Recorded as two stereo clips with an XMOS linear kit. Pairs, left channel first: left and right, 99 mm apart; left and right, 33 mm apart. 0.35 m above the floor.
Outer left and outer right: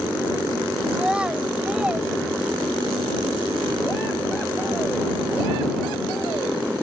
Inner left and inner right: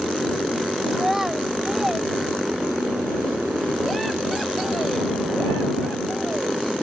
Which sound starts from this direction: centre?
A child speaking, at 0.9 s.